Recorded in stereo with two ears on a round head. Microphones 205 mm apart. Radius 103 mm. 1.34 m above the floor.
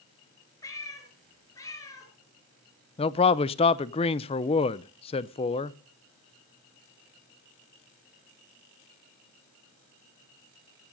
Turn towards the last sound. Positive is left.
turn(degrees=25)  # may be behind; listen again after turning